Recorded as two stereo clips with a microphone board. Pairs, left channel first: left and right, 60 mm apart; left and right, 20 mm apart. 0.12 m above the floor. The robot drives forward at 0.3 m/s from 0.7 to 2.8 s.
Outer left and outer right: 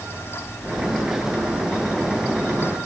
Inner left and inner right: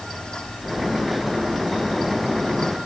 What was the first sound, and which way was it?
Only background noise.